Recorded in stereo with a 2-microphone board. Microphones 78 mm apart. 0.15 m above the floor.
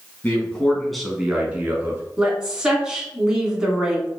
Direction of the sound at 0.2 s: 25° left (ahead or behind).